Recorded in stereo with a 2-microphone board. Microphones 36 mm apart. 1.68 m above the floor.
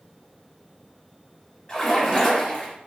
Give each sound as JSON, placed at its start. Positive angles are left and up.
{"t": 1.7, "sound": "a splash", "side_deg": 25, "distance_m": 1.2}